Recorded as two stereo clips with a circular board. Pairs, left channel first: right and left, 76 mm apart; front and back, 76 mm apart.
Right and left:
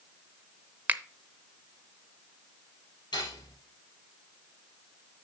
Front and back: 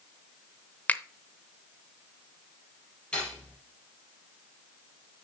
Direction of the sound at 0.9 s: 45° left.